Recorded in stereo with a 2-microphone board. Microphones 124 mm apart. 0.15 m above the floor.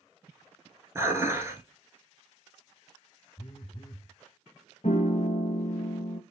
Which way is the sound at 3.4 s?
50° left (ahead or behind).